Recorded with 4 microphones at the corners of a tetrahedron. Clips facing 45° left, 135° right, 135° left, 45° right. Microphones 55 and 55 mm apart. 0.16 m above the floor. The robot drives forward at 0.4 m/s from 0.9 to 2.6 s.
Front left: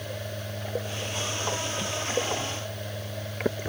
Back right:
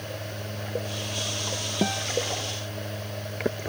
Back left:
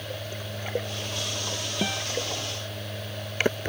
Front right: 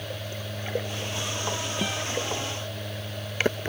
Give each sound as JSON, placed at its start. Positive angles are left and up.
{"t": 1.8, "sound": "a guitar", "azimuth_deg": -145}